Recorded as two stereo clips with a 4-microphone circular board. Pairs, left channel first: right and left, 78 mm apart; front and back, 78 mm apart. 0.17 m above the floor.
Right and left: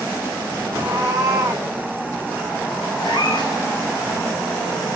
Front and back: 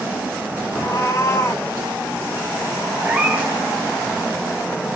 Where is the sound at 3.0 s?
105° right, 3.5 m.